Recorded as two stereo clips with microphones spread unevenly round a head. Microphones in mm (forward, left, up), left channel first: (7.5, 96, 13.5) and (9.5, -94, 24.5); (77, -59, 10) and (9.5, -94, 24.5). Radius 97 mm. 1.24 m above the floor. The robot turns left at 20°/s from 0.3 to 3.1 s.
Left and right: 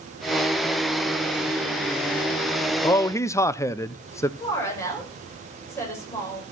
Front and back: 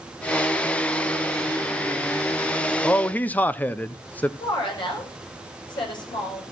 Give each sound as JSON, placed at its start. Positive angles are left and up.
{"t": 2.8, "sound": "a man speaking", "azimuth_deg": 40, "distance_m": 0.6}
{"t": 4.4, "sound": "a woman speaking", "azimuth_deg": 15, "distance_m": 6.5}